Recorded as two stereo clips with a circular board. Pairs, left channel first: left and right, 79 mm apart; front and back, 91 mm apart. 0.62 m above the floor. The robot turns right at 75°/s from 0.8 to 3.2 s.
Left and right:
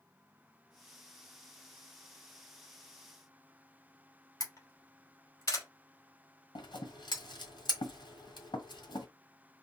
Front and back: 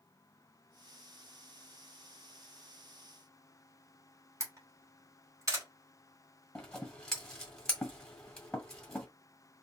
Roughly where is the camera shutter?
Behind left.